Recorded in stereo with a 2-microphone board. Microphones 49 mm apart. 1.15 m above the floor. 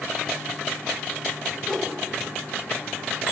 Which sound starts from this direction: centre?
A whoosh, at 1.6 s.